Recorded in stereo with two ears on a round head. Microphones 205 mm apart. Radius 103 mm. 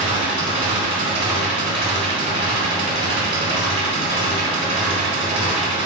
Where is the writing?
No writing in this recording.